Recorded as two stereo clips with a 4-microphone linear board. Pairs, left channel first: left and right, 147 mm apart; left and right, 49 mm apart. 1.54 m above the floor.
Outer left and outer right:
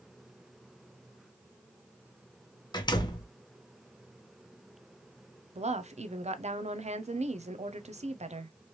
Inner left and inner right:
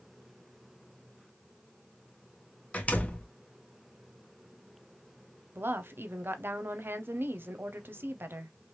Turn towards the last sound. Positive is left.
turn(degrees=-50)  # may be behind; listen again after turning